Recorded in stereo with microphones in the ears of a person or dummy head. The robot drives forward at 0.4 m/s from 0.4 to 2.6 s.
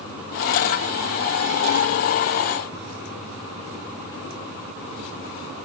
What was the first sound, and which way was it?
Only background noise.